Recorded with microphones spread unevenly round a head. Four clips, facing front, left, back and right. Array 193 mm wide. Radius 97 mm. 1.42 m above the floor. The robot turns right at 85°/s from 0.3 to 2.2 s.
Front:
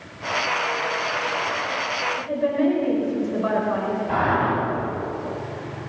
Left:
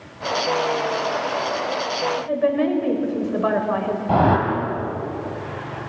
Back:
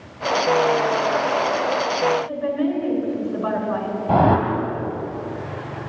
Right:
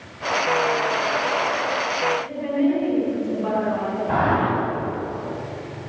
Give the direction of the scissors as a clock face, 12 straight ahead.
No scissors in this recording.